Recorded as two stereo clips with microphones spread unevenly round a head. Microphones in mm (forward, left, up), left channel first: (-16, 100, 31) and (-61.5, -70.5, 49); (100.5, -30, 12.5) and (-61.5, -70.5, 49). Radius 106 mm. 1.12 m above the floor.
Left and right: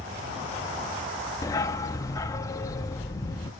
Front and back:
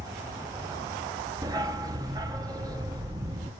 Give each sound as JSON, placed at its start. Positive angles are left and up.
{"t": 1.4, "sound": "a dog barking", "azimuth_deg": 145, "distance_m": 0.6}